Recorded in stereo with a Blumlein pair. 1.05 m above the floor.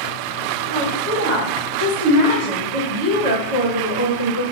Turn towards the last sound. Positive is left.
turn(degrees=-65)